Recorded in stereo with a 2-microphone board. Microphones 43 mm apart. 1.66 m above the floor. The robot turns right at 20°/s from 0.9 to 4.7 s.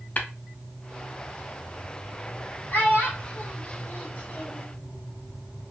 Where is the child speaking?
50° left (ahead or behind), 1.5 m; by 4.7 s 45° left (ahead or behind), 1.5 m.